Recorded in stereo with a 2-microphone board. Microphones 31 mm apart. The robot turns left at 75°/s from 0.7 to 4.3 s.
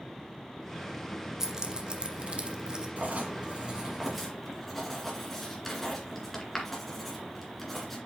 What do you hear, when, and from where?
1.4 s keys jangling: 15° right (ahead or behind), 0.9 m; by 2.9 s 25° right (ahead or behind), 0.9 m
3.0 s writing: 55° right (ahead or behind), 2 m; by 8.0 s 5° left (ahead or behind), 2 m